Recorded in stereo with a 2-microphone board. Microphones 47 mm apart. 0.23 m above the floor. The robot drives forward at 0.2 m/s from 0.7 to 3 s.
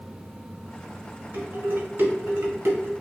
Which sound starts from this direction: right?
Dishes clattering, at 1.3 s.